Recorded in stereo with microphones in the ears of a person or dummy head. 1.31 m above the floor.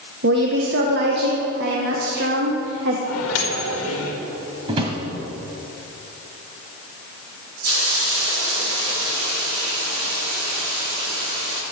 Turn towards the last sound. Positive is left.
turn(degrees=-80)